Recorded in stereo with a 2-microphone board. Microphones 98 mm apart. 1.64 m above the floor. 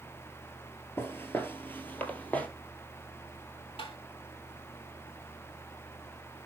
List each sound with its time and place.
1.0 s footsteps: 25° left (ahead or behind), 1.7 m; by 2.5 s 15° left (ahead or behind), 2.5 m
3.8 s tapping: 70° left (ahead or behind), 3.5 m